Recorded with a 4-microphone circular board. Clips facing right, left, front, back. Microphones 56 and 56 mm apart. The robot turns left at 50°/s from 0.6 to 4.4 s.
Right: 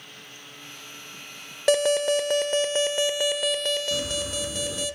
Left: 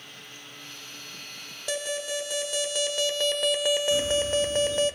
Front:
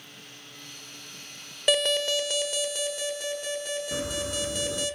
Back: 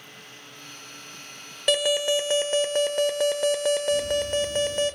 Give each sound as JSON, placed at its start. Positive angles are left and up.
{"t": 1.7, "sound": "an alarm", "azimuth_deg": -90, "distance_m": 1.3}
{"t": 3.9, "sound": "a bird", "azimuth_deg": -5, "distance_m": 2.5}